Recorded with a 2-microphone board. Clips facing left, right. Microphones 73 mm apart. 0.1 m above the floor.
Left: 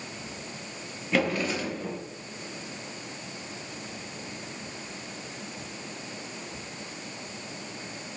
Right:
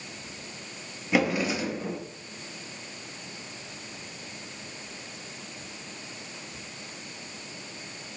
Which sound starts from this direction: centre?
A drawer, at 1.1 s.